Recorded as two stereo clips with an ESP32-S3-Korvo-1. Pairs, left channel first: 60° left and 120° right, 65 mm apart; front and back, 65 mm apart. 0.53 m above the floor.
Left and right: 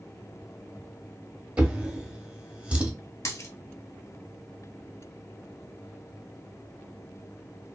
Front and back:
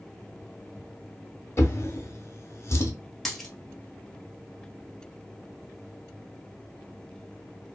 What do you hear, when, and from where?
1.6 s a drawer: 45° right, 0.6 m
3.2 s a dropped coin: 90° left, 0.8 m